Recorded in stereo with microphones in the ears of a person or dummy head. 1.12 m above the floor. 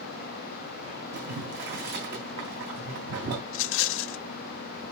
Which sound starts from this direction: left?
A rattle, at 3.5 s.